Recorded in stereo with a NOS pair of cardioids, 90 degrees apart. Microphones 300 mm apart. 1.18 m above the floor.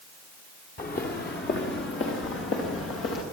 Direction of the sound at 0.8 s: 35° left.